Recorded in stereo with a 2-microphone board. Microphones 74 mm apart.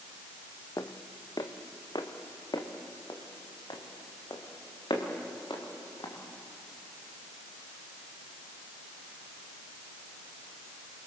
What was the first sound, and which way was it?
Footsteps, 55° left (ahead or behind).